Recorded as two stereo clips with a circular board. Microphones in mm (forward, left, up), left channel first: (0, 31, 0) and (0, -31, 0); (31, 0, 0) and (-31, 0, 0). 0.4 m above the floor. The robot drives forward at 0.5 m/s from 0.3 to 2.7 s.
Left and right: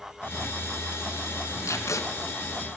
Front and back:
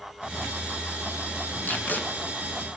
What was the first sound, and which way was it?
Tape being pulled, 55° left.